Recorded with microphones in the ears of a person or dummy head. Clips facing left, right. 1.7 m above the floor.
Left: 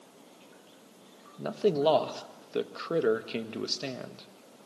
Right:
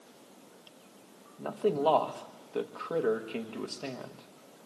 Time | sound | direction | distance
1.4 | a man speaking | 25° left (ahead or behind) | 1.4 m